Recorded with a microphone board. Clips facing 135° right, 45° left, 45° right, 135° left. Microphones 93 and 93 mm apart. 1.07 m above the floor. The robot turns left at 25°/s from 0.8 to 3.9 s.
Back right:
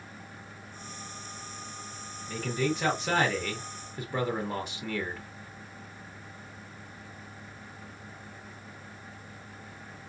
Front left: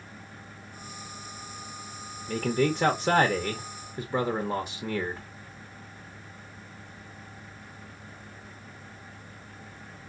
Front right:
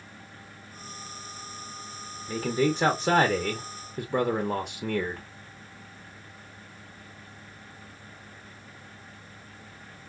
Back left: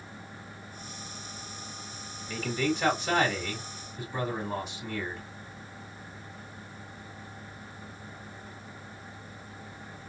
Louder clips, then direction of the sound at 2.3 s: Front left 4 dB, front right 4 dB; 10° left.